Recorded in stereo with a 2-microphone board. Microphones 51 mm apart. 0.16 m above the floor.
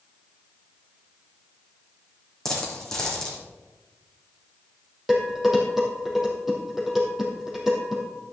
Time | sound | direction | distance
2.5 | a dropped coin | 15° left (ahead or behind) | 4.5 m
5.1 | dishes clattering | 5° right (ahead or behind) | 4 m